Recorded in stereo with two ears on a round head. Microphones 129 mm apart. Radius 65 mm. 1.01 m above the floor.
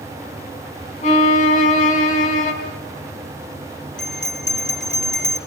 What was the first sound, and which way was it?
A violin, 60° left (ahead or behind).